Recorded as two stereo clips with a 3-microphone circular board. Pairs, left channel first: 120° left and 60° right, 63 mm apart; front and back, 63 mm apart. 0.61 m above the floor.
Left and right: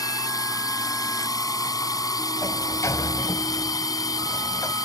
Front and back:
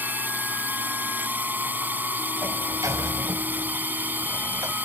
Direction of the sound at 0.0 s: 120° left.